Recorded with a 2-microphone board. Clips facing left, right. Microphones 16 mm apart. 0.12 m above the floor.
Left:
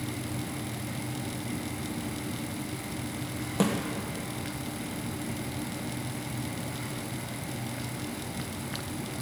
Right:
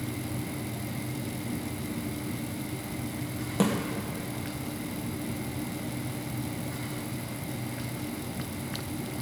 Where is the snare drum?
5° left (ahead or behind), 1.8 m.